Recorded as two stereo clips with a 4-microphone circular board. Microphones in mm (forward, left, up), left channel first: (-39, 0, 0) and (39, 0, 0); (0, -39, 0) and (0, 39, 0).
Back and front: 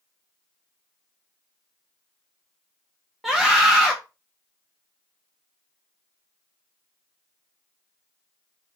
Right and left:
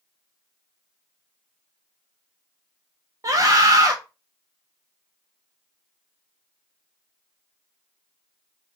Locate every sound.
3.2 s a scream: 85° left, 0.6 m